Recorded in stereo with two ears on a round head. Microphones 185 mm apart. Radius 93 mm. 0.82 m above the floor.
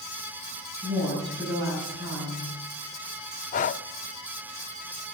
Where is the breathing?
35° left (ahead or behind), 0.5 m.